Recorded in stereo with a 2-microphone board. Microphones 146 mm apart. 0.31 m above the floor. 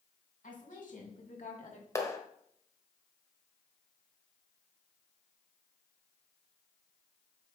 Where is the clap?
20° left (ahead or behind), 1.1 m.